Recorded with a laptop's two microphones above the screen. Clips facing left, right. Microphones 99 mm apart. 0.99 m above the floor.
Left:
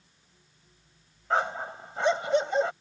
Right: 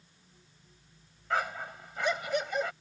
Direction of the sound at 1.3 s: 30° left (ahead or behind).